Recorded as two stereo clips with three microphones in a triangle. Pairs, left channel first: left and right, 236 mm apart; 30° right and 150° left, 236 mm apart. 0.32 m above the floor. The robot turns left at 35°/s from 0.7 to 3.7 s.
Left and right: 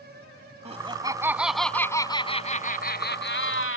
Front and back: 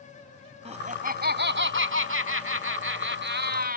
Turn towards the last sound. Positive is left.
turn(degrees=105)